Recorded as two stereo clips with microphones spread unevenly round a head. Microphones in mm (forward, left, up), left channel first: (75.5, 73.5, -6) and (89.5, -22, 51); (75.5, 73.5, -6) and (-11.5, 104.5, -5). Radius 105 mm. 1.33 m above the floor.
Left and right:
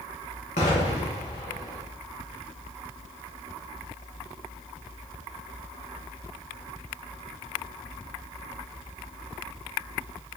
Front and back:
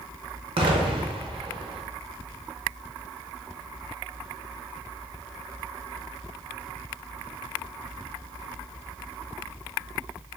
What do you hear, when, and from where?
0.6 s an explosion: 155° left, 0.7 m